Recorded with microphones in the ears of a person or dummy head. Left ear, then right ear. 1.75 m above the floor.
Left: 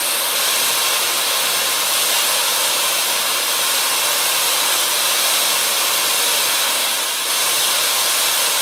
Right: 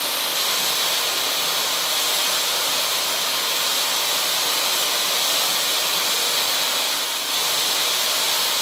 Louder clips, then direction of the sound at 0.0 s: Left 3 dB; 45° left (ahead or behind).